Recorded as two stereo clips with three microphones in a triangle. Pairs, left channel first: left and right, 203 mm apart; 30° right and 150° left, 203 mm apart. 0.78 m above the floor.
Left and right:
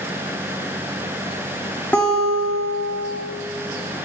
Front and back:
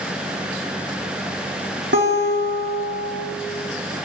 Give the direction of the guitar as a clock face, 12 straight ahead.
6 o'clock.